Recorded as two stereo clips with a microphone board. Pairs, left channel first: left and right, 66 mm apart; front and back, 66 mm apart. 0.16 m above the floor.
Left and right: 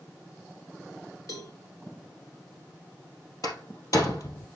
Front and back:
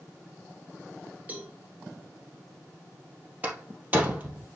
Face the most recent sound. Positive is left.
turn(degrees=115)